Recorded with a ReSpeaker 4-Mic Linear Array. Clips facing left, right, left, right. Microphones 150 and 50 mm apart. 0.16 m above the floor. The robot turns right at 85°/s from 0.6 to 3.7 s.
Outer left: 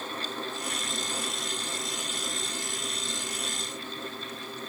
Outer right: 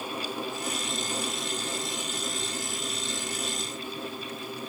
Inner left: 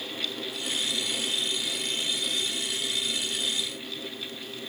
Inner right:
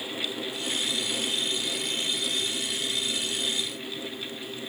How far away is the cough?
I don't hear a cough.